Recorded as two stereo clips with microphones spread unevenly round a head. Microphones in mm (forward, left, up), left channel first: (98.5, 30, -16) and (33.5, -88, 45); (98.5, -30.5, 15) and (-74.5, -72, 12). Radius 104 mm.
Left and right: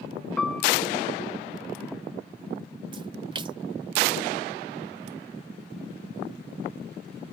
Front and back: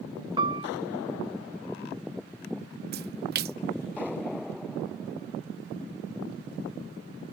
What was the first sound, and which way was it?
A piano, 130° left.